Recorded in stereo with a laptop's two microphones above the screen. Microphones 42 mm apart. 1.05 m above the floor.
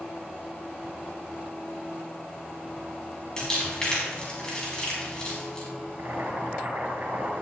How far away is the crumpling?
About 4 m.